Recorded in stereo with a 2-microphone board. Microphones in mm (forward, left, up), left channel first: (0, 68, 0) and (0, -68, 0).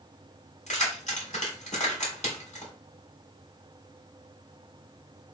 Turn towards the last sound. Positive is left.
turn(degrees=55)  # may be behind; listen again after turning